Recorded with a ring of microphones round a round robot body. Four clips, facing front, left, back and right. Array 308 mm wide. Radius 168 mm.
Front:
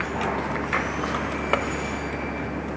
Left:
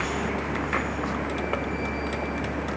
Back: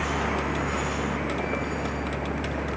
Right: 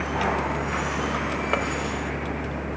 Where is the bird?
I don't hear a bird.